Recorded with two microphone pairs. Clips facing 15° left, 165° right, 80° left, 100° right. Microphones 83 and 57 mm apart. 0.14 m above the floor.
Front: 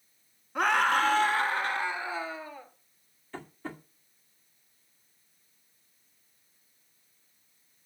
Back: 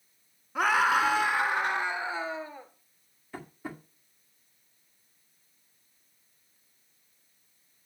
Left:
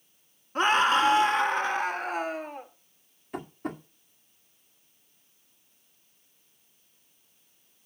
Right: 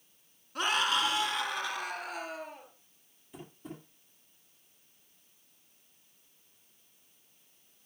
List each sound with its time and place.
0.6 s a scream: 110° left, 1.4 m; by 2.7 s 130° left, 2.5 m
3.3 s tapping: 115° left, 2 m